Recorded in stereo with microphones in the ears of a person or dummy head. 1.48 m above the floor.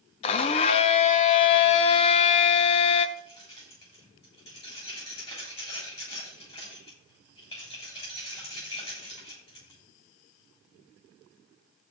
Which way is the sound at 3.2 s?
35° left (ahead or behind).